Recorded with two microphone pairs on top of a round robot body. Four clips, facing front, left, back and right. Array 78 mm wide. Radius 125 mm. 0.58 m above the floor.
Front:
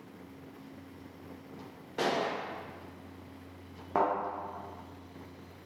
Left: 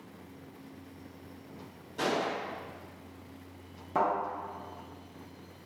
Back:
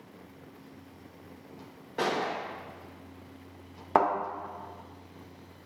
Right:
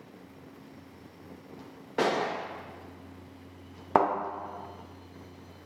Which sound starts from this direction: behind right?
A thud, at 4.0 s.